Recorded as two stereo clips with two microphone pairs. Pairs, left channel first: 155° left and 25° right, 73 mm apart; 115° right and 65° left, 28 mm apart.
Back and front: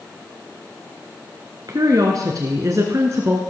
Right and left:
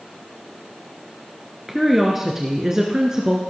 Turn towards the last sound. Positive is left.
turn(degrees=10)